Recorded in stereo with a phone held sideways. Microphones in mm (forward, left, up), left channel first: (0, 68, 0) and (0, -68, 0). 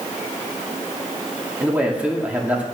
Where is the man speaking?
10° right (ahead or behind), 2 m.